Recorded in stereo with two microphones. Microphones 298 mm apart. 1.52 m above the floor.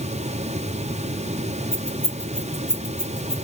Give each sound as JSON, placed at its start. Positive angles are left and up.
{"t": 1.7, "sound": "keys jangling", "side_deg": 5, "distance_m": 2.5}